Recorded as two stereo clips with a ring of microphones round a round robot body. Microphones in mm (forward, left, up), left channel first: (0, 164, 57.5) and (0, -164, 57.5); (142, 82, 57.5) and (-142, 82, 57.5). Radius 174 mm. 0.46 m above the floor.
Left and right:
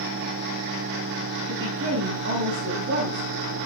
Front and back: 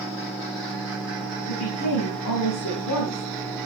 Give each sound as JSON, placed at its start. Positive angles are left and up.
{"t": 1.5, "sound": "a woman speaking", "azimuth_deg": -35, "distance_m": 4.5}